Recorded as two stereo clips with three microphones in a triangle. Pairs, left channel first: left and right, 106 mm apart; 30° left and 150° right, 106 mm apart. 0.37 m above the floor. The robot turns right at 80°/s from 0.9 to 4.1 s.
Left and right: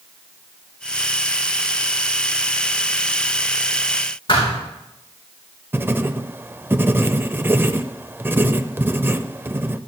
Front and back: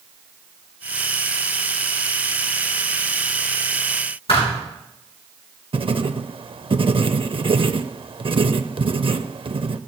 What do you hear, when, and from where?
4.3 s a thud: 55° left, 5 m
5.7 s writing: 155° right, 0.6 m